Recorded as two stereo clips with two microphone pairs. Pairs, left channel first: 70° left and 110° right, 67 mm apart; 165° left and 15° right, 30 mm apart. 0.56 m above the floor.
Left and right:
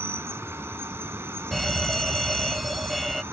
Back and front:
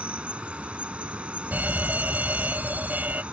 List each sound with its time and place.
0.0 s an insect: 60° right
1.5 s a fire alarm: 20° right